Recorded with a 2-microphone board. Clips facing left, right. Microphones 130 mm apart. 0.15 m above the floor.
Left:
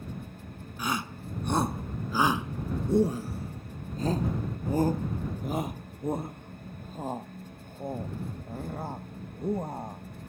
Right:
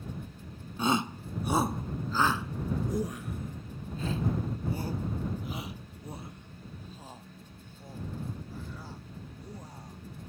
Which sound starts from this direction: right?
A shout, at 0.8 s.